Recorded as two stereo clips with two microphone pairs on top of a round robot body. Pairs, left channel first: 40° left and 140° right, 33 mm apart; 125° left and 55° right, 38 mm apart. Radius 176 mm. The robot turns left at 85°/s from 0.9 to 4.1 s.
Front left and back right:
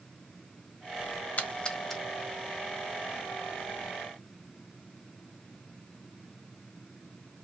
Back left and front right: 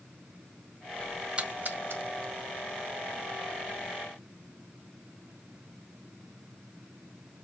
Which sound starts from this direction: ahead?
A splash, at 1.4 s.